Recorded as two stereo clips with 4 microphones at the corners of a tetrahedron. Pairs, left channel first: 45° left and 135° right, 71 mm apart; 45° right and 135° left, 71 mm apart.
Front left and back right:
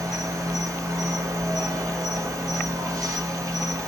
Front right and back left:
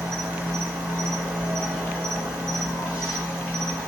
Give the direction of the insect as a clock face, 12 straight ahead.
5 o'clock.